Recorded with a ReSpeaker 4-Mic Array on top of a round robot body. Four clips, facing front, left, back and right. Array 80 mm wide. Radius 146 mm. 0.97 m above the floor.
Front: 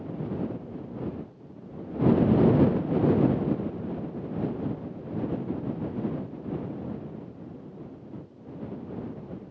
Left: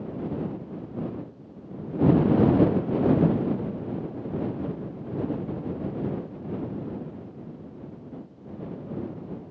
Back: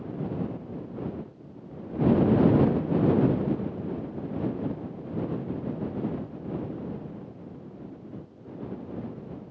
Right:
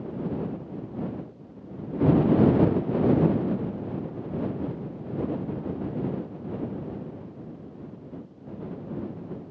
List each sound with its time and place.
Only background noise.